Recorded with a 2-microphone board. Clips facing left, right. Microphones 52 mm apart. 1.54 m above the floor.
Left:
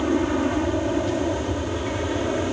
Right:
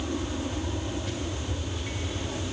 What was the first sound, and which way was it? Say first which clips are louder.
An aircraft: left 10 dB; 55° left (ahead or behind).